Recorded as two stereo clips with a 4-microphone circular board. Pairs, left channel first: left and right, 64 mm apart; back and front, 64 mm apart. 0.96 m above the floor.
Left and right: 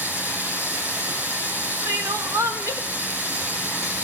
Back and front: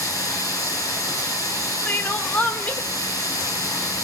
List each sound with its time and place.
0.0 s running water: 150° right, 7 m
1.9 s crying: 115° right, 1.2 m